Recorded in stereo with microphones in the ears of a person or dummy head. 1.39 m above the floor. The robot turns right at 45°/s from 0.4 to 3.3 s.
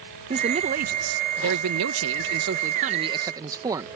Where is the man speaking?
155° right; by 3.9 s 20° right.